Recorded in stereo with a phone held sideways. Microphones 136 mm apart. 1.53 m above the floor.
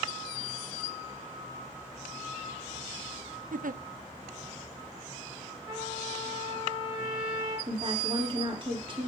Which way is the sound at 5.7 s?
25° right (ahead or behind).